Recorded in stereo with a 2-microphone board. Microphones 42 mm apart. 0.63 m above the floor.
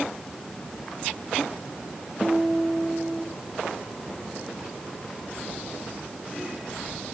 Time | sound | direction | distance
2.2 | a guitar | 10° right (ahead or behind) | 5.5 m